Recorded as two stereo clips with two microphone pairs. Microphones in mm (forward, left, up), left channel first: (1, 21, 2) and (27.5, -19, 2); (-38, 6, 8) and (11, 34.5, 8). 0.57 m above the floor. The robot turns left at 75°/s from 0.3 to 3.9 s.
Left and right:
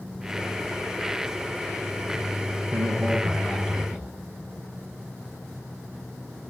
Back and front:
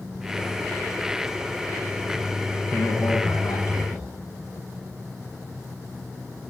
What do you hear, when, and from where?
2.7 s a man speaking: 100° right, 4 m; by 4.1 s 170° left, 4 m